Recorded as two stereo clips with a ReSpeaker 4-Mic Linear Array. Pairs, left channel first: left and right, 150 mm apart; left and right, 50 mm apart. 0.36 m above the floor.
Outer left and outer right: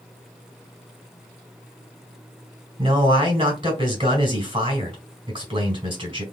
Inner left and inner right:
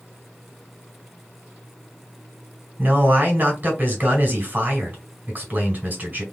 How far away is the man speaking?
About 1.8 m.